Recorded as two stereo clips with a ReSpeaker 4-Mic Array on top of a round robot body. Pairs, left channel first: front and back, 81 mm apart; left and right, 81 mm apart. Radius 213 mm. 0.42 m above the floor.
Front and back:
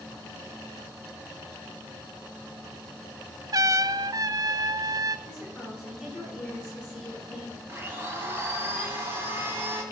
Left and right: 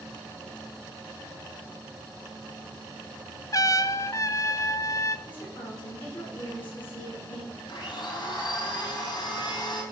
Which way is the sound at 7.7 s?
120° left.